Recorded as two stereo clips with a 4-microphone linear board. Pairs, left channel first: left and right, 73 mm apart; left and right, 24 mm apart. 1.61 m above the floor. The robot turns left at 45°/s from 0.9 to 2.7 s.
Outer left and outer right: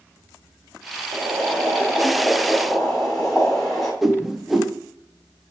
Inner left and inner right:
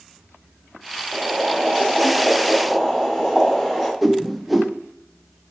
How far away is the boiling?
About 4.5 m.